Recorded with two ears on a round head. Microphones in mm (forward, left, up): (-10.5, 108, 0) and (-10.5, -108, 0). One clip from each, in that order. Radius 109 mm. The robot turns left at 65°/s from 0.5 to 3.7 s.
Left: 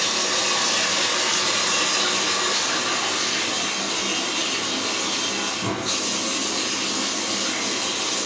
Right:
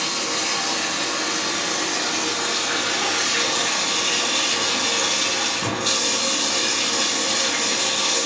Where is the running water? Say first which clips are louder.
Left 1 dB; 160° left, 4 m; by 8.3 s 50° right, 4 m.